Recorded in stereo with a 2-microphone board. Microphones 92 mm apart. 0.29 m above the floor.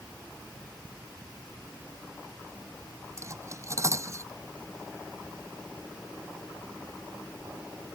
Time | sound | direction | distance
3.2 | cutlery clinking | 35° right (ahead or behind) | ?